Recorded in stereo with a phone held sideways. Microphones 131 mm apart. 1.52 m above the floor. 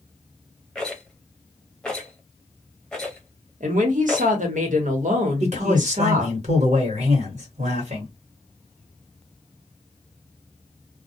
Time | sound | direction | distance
0.8 | a rattle | 5° left (ahead or behind) | 0.8 m
3.6 | a woman speaking | 75° right (ahead or behind) | 1.0 m
5.4 | a man speaking | 60° right (ahead or behind) | 1.1 m